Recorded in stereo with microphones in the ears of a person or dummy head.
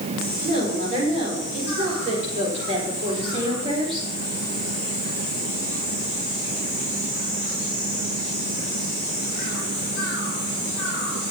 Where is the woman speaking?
40° right (ahead or behind), 5.5 m; by 4.1 s 30° right (ahead or behind), 4 m.